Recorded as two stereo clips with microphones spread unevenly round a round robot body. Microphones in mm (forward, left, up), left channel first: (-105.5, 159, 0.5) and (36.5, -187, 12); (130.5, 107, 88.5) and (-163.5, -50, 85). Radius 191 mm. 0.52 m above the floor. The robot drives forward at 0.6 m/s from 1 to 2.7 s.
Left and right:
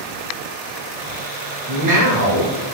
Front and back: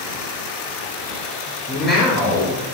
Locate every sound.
1.7 s a man speaking: 50° right, 1.0 m; by 2.6 s 95° right, 0.9 m